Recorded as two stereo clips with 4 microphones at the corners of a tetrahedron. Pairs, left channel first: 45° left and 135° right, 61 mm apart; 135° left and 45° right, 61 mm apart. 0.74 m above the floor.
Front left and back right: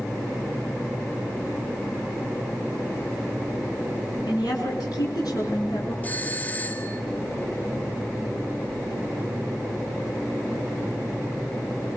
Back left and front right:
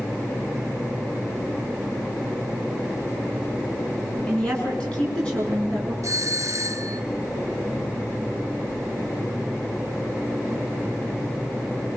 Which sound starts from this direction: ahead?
A doorbell, at 6.0 s.